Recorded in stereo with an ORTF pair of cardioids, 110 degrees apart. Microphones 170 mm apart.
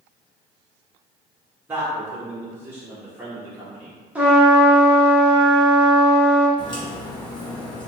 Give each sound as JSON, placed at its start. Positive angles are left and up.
{"t": 1.7, "sound": "a man speaking", "azimuth_deg": -10, "distance_m": 0.9}
{"t": 4.2, "sound": "a trumpet", "azimuth_deg": -5, "distance_m": 0.9}
{"t": 6.6, "sound": "a crack", "azimuth_deg": 30, "distance_m": 1.0}